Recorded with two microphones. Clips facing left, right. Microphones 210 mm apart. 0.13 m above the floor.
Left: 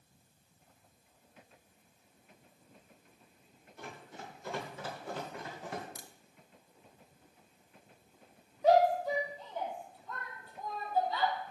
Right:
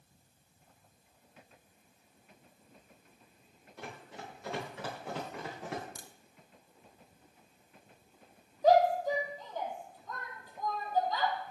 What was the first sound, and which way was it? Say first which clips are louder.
Running footsteps: right 1 dB; 80° right.